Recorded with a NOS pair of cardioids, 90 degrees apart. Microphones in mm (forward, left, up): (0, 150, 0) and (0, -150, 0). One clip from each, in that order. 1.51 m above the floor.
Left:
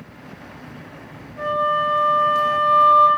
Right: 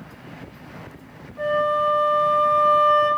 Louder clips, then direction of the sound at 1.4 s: Left 1 dB; 5° left.